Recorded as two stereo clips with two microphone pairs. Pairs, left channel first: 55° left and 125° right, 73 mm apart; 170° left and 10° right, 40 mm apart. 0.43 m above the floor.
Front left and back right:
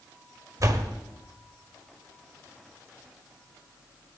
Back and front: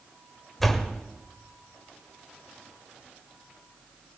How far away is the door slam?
About 1.4 m.